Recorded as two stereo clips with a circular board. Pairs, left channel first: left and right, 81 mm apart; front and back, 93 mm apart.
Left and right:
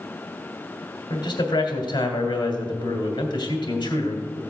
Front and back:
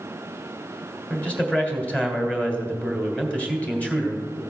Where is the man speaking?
75° left, 2.5 m.